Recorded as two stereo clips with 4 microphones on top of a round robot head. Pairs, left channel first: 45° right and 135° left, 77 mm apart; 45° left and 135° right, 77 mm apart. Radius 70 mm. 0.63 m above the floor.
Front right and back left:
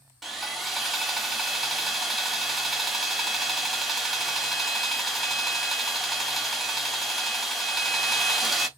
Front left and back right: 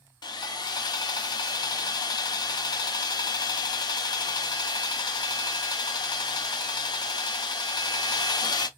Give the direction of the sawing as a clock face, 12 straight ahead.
10 o'clock.